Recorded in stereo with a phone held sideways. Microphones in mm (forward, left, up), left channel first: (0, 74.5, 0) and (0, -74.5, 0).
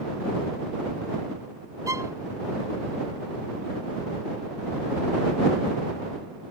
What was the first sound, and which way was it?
A violin, 20° right (ahead or behind).